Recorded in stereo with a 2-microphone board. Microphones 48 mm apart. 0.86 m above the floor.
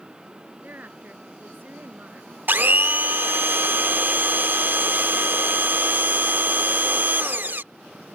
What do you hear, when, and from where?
0.6 s a woman speaking: 40° right (ahead or behind)
2.5 s a blender: 45° right (ahead or behind)